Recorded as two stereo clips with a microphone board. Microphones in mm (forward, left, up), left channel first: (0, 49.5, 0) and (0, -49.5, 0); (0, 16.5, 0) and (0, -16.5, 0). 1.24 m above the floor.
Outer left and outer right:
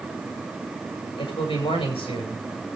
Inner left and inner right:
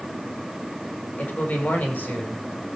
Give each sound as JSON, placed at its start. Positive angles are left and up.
{"t": 1.2, "sound": "a man speaking", "side_deg": 60, "distance_m": 5.5}